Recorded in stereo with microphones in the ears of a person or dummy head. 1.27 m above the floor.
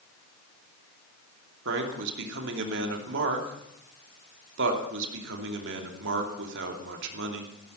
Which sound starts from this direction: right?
A man speaking, at 1.6 s.